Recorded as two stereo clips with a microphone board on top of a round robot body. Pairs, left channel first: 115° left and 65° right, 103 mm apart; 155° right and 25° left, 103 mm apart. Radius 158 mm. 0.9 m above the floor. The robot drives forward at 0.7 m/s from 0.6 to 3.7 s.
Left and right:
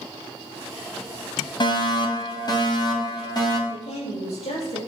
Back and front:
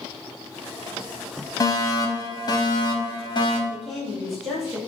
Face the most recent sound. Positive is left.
turn(degrees=115)